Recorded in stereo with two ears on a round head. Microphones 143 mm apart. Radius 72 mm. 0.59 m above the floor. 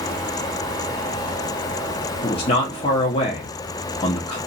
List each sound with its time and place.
2.2 s a man speaking: 35° left (ahead or behind), 0.7 m